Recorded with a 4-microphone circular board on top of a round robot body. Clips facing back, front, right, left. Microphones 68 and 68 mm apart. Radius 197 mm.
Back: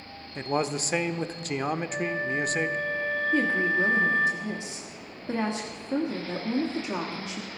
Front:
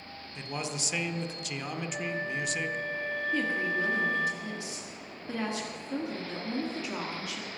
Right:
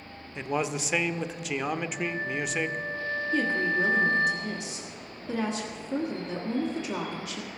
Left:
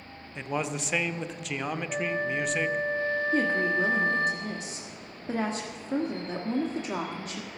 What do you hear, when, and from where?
0.3 s a man speaking: 175° right, 0.9 m
1.9 s a flute: 115° left, 0.6 m
3.3 s a woman speaking: 125° left, 1.6 m